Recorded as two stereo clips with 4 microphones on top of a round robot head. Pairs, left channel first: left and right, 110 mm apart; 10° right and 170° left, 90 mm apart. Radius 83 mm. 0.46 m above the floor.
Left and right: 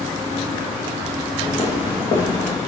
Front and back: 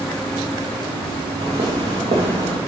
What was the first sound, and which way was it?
Footsteps, 145° left.